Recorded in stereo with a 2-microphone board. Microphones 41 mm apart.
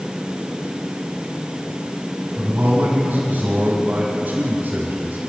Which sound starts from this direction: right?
A man speaking, at 2.4 s.